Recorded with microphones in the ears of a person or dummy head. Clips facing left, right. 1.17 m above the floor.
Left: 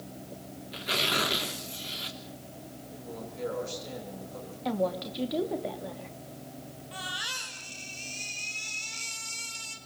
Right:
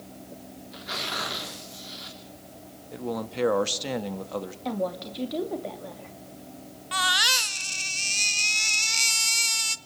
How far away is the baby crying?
About 1.3 m.